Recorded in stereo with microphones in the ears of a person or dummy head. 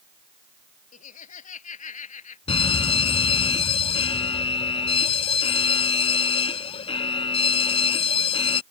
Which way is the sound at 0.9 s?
50° left (ahead or behind).